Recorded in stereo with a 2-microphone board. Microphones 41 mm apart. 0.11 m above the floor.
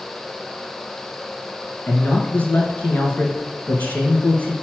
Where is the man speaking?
40° left (ahead or behind), 1.6 m.